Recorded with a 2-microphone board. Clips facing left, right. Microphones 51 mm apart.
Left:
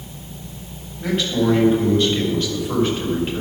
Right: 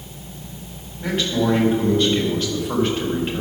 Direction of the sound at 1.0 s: Centre (ahead or behind).